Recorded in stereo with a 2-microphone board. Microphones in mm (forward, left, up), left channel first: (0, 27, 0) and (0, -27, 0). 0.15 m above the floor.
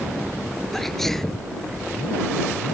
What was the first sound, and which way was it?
A sneeze, 5° left (ahead or behind).